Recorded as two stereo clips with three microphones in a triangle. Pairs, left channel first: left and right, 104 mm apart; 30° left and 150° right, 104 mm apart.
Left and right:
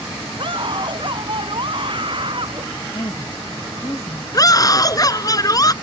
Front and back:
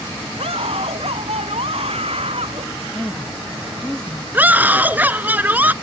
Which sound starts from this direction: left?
A woman speaking, at 2.9 s.